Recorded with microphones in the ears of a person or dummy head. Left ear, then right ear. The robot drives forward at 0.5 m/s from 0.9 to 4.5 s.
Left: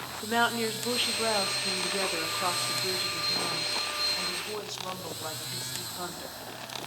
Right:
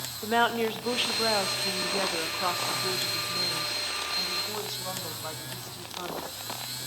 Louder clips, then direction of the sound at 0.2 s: Right 2 dB; 10° right (ahead or behind).